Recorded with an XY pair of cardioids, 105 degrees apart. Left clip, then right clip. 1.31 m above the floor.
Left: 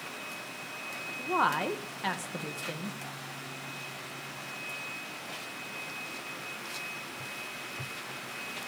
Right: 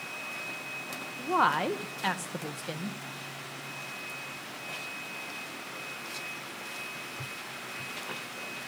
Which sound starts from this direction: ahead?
A woman speaking, at 1.2 s.